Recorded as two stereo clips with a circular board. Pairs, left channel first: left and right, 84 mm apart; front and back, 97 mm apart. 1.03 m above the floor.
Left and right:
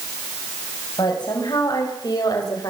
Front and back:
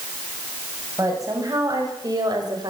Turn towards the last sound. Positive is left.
turn(degrees=135)